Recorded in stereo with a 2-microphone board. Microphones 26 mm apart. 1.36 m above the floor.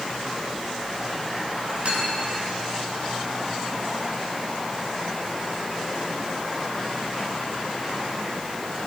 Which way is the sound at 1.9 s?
45° right (ahead or behind).